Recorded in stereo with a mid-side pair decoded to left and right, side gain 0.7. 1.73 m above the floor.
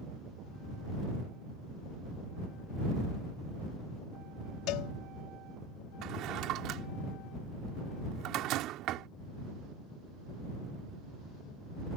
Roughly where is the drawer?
Ahead right.